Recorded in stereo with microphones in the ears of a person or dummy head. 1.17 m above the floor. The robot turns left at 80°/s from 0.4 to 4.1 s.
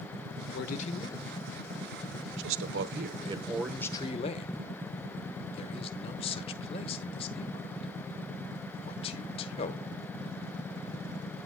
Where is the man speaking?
60° left (ahead or behind), 0.5 m; by 9.8 s 35° left (ahead or behind), 0.5 m.